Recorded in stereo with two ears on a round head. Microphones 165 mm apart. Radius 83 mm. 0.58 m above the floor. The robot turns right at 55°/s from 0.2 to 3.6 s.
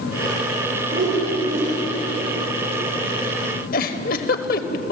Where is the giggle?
50° left (ahead or behind), 1.1 m.